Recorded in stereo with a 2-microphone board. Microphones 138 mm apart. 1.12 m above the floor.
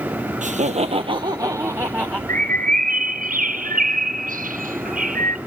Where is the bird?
85° right, 0.6 m.